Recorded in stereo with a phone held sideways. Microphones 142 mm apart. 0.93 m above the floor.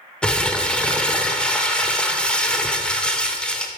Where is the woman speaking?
I don't hear a woman speaking.